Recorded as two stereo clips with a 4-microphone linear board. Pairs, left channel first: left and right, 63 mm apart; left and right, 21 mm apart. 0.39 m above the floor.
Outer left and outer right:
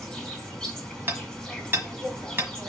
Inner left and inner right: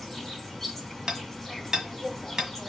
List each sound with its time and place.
0.0 s an insect: 5° left (ahead or behind), 2.5 m
1.1 s hammering: 35° right (ahead or behind), 1.5 m